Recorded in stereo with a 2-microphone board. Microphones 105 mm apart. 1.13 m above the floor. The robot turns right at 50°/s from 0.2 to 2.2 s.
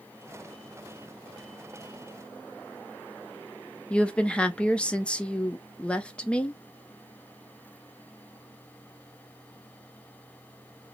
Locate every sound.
3.9 s a woman speaking: 10° left (ahead or behind), 0.5 m